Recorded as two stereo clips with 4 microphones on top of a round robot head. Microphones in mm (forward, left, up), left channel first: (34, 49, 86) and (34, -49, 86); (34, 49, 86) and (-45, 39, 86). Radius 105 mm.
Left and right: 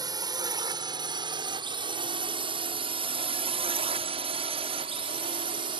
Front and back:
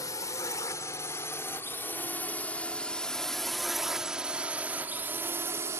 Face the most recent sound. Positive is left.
turn(degrees=-120)